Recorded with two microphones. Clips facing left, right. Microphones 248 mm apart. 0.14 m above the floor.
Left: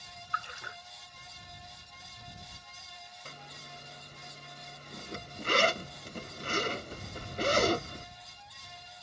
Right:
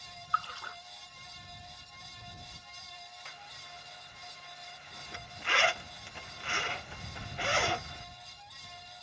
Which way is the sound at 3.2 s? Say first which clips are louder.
Left 4 dB; 45° left (ahead or behind).